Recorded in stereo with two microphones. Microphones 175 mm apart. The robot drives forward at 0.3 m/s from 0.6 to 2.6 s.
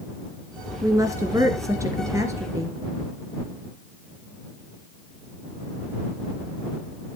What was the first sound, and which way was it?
A woman speaking, 20° right (ahead or behind).